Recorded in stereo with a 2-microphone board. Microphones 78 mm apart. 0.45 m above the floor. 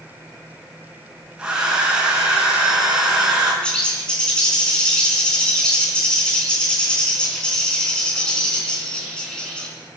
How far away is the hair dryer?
About 6 m.